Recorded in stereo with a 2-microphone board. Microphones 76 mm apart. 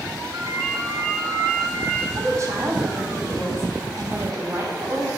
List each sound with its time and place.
0.3 s a ringtone: 60° right (ahead or behind), 1.8 m
2.2 s a woman speaking: 45° right (ahead or behind), 2.5 m